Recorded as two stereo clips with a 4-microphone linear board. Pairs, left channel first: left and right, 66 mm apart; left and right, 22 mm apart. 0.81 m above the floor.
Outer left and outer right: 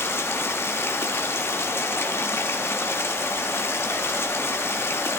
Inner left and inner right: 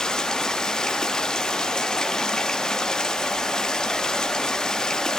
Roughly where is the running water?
Left.